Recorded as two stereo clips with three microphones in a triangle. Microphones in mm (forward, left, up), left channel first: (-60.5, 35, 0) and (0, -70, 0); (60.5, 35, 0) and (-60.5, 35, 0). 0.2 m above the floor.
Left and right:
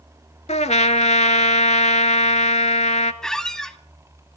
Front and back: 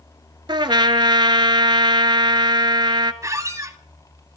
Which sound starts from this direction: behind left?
A trumpet, at 0.5 s.